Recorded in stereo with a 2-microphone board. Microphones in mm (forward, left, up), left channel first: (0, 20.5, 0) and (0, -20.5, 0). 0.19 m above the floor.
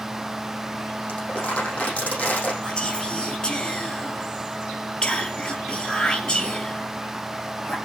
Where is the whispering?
20° left (ahead or behind), 3 m.